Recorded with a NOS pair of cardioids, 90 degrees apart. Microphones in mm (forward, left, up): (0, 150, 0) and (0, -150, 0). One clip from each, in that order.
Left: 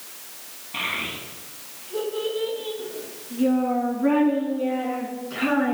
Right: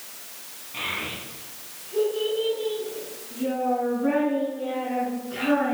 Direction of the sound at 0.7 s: 55° left.